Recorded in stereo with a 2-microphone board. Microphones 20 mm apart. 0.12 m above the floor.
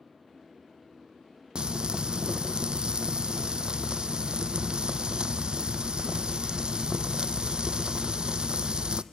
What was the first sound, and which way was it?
Frying, 55° right (ahead or behind).